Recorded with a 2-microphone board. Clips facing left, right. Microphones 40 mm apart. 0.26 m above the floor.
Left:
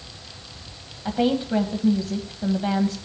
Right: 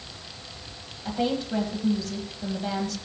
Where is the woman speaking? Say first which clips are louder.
Left 5 dB; 25° left (ahead or behind), 1.2 m.